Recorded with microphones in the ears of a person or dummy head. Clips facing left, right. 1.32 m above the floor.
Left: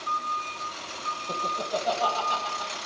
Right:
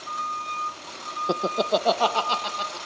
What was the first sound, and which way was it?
Laughter, 85° right.